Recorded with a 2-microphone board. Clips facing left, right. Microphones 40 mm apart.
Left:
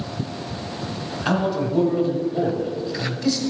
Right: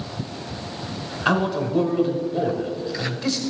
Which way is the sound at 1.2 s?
10° right (ahead or behind).